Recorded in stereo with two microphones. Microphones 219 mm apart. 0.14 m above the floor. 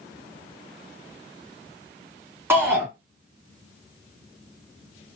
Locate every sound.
2.5 s a shout: 10° right (ahead or behind), 1.6 m